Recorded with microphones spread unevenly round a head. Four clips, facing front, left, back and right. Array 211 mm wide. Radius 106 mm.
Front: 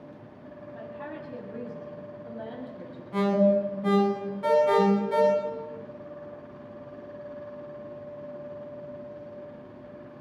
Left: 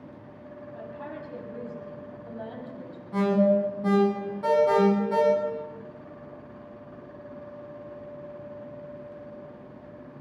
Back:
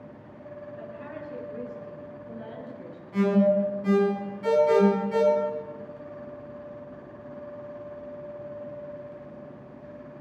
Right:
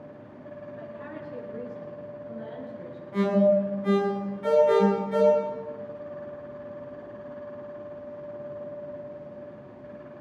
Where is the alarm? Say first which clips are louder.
Right 1 dB, back 1 dB; 50° left, 9 m.